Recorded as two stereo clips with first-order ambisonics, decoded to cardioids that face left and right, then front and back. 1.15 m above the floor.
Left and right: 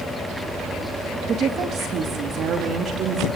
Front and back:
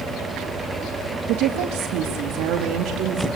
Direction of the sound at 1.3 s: 155° right.